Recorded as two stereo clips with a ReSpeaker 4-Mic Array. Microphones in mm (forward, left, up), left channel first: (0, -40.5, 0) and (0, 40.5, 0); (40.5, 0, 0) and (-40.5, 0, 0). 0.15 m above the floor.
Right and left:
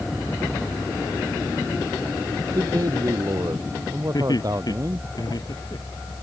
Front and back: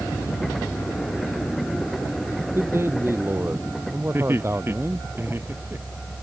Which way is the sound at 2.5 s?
125° left.